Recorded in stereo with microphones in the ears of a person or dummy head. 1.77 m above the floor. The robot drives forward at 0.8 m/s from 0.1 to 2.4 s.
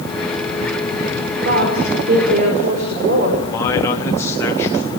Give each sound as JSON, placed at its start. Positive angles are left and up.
{"t": 1.4, "sound": "a woman speaking", "side_deg": -55, "distance_m": 6.0}
{"t": 3.5, "sound": "a man speaking", "side_deg": 15, "distance_m": 3.5}